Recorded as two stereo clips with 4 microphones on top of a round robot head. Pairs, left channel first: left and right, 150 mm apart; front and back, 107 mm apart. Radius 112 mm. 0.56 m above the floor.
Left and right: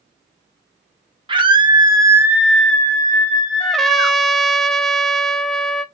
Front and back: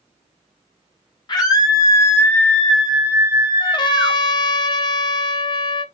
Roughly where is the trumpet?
Ahead.